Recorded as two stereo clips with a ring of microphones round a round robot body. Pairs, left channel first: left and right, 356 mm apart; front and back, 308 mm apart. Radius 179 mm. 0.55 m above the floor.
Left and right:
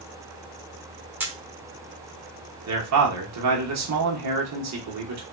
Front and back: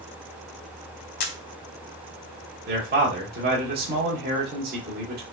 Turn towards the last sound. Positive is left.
turn(degrees=-125)